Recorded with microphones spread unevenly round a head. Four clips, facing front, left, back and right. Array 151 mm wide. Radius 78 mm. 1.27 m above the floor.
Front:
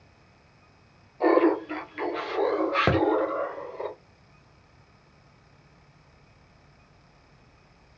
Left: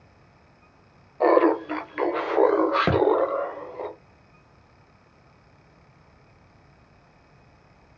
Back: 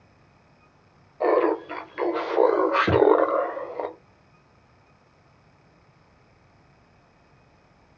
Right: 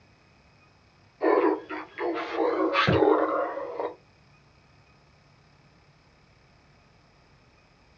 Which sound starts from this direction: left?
Laughter, at 1.2 s.